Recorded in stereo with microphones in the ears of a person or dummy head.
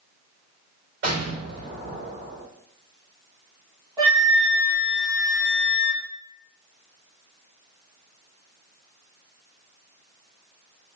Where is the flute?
20° right (ahead or behind), 1.1 m.